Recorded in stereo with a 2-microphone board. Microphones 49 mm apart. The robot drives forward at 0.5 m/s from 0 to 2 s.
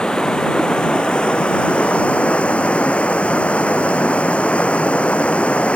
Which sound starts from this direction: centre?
Running water, at 0.0 s.